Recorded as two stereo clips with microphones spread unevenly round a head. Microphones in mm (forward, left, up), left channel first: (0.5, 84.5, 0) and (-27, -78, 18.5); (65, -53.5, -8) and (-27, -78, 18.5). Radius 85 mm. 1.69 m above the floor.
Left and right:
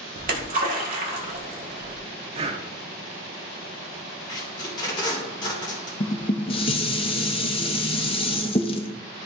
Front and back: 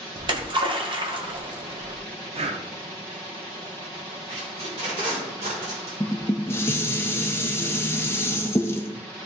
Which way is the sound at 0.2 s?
140° right.